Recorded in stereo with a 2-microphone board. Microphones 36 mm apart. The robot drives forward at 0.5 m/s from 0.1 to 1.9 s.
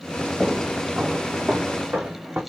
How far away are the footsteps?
About 1.4 m.